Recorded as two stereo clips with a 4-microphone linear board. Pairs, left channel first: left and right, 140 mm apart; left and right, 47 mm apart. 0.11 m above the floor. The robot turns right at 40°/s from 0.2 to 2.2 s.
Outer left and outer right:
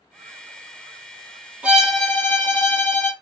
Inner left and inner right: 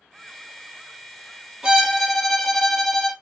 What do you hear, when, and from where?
1.6 s a violin: 10° right (ahead or behind), 1.1 m; by 3.1 s 10° left (ahead or behind), 1.1 m